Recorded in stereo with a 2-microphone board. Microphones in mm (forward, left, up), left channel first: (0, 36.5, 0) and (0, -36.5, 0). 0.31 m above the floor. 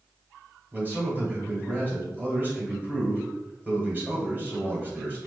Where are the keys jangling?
No keys jangling in this recording.